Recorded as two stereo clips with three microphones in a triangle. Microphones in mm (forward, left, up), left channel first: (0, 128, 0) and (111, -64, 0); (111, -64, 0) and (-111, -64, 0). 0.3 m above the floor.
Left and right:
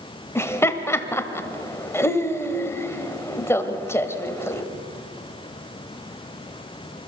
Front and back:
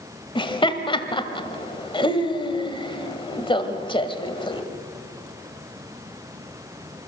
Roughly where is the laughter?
Ahead left.